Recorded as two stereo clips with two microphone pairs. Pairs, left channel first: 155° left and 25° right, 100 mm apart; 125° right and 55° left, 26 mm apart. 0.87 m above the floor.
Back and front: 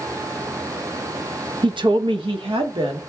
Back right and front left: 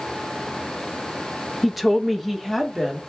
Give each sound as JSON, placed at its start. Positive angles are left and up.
{"t": 1.6, "sound": "a woman speaking", "azimuth_deg": -35, "distance_m": 0.6}